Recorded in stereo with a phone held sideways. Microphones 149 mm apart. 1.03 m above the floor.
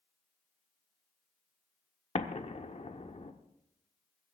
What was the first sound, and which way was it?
An explosion, 50° left (ahead or behind).